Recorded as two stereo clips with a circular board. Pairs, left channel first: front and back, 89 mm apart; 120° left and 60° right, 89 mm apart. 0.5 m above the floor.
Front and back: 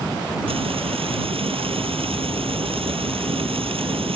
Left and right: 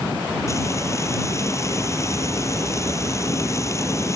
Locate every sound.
0.5 s frying: 175° left